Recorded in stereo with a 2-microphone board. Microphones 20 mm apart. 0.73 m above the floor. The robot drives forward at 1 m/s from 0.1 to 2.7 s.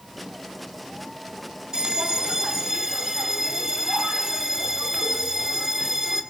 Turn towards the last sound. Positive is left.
turn(degrees=-25)  # may be behind; listen again after turning